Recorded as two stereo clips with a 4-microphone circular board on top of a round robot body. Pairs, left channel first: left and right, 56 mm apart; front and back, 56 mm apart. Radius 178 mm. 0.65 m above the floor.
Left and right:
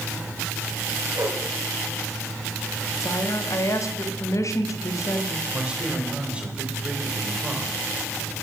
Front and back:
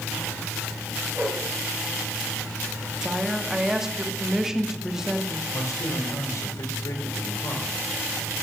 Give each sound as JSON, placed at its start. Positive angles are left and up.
{"t": 1.1, "sound": "a whoosh", "azimuth_deg": -120, "distance_m": 5.5}
{"t": 3.0, "sound": "a woman speaking", "azimuth_deg": 100, "distance_m": 1.7}
{"t": 5.5, "sound": "a man speaking", "azimuth_deg": -20, "distance_m": 3.5}